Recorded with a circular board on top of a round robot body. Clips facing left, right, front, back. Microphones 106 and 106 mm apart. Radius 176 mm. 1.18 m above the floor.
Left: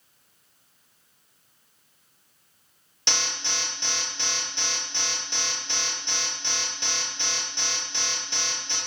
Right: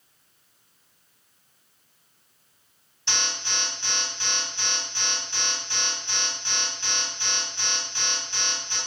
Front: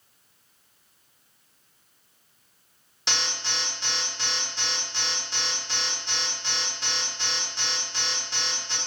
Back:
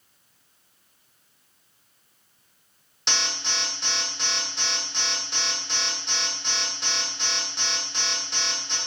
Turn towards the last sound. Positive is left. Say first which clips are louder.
# even, back 1 dB
turn(degrees=90)